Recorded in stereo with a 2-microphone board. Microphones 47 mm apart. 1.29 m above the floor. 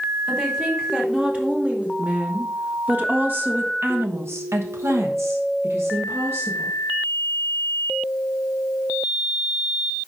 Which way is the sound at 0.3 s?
15° right (ahead or behind).